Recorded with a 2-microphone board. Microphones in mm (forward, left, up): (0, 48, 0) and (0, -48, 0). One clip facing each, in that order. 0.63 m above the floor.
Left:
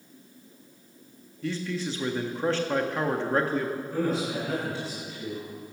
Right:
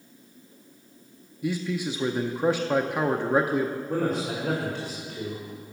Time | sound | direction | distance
1.4 | a man speaking | 15° right (ahead or behind) | 0.5 m
3.9 | a man speaking | 60° right (ahead or behind) | 2.5 m